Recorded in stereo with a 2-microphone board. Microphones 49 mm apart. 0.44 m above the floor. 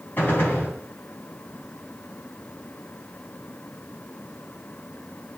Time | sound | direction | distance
0.2 | a gunshot | 40° left (ahead or behind) | 3 m